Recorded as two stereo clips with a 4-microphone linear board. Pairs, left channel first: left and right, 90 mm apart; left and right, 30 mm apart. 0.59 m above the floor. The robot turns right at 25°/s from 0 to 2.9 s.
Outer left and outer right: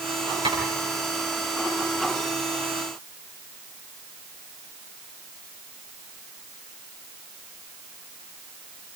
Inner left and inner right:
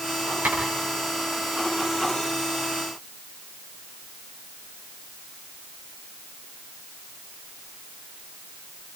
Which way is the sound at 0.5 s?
80° right.